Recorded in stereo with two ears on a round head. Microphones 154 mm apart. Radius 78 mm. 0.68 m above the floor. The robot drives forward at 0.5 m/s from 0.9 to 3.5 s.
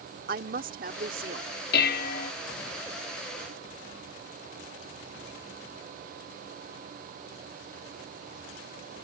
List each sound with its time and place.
0.3 s a woman speaking: 50° right (ahead or behind); by 1.5 s 60° right (ahead or behind)
1.7 s dishes clattering: 60° left (ahead or behind); by 2.3 s 55° left (ahead or behind)